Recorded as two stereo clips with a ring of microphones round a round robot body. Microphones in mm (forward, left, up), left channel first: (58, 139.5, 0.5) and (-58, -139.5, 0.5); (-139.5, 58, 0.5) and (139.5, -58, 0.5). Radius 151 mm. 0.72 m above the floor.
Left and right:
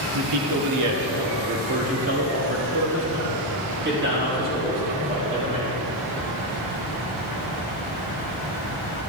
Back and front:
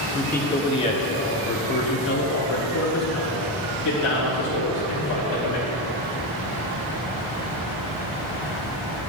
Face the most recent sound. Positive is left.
turn(degrees=-175)